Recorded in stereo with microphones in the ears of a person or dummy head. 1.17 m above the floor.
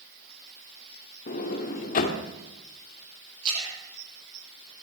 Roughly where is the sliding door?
Left.